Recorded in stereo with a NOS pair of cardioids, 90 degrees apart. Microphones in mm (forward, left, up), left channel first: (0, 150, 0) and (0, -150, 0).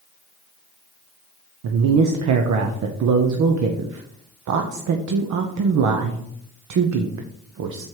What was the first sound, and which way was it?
A woman speaking, 70° right.